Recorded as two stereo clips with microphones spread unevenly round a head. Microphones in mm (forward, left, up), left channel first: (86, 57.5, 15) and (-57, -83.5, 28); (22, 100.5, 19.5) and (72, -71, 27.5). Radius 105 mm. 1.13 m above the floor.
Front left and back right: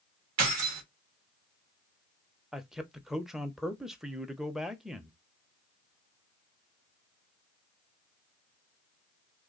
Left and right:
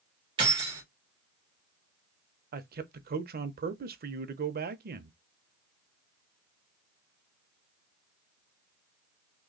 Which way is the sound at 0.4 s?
140° right.